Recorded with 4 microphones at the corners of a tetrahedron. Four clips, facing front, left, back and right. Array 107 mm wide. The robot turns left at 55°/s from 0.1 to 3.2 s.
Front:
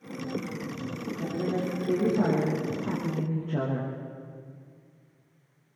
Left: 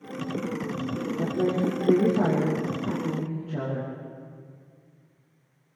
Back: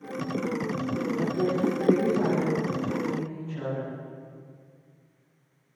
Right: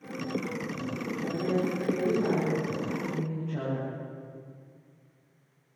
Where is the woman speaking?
130° left, 6.5 m; by 3.9 s 20° left, 6.5 m.